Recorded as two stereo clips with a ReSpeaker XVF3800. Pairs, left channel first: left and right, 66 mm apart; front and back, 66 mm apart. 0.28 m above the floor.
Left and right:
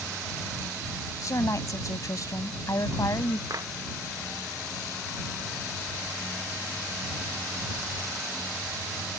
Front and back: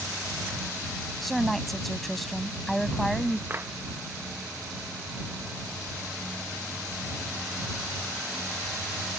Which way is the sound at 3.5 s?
125° right.